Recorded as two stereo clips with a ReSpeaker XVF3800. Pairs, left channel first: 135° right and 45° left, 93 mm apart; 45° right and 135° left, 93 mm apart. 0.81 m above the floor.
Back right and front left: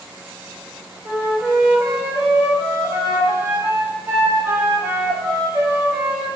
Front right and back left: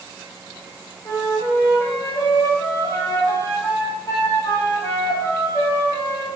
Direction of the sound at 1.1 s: 5° right.